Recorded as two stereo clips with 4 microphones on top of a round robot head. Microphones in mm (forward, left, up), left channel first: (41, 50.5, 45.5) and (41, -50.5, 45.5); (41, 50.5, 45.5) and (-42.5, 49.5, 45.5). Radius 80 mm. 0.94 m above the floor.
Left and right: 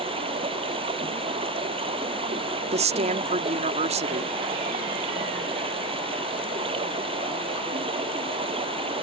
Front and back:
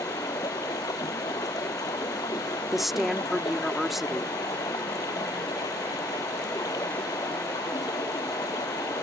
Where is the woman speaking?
90° right.